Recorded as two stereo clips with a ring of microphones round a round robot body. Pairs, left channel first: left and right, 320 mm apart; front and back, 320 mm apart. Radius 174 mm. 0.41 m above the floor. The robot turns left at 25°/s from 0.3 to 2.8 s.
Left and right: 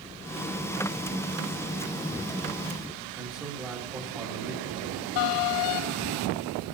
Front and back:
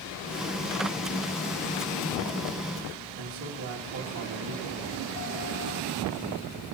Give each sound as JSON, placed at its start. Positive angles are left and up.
{"t": 3.2, "sound": "a man speaking", "azimuth_deg": -170, "distance_m": 2.5}